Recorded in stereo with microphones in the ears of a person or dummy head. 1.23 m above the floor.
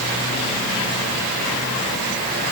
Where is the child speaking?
No child speaking in this recording.